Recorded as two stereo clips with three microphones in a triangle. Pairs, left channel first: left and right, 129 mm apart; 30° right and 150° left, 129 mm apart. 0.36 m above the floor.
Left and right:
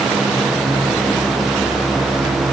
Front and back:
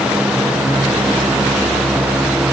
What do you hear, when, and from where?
Only background noise.